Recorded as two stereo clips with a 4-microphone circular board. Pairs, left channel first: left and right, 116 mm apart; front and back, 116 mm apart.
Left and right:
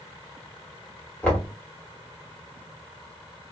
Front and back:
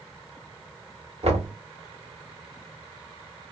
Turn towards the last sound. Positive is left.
turn(degrees=165)